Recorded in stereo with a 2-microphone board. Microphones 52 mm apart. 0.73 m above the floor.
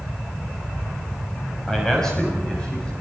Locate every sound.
1.7 s a man speaking: 10° left (ahead or behind), 5 m; by 2.9 s 20° left (ahead or behind), 6 m